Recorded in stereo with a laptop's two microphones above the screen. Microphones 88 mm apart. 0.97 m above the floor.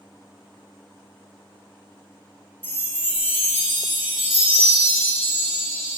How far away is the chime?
About 0.7 m.